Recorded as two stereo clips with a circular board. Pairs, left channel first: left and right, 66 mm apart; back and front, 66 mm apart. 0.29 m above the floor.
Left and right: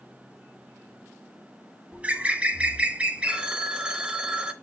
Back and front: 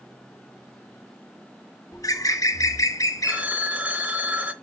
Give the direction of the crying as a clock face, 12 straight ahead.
No crying in this recording.